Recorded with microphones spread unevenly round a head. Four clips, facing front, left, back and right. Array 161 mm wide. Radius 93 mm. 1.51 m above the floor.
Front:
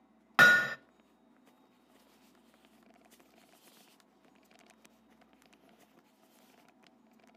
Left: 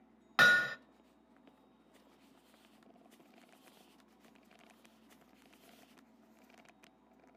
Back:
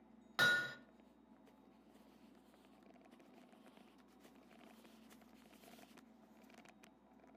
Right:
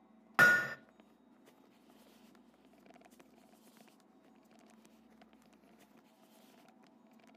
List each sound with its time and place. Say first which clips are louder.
0.4 s hammering: even, front 12 dB; 5° left, 1.0 m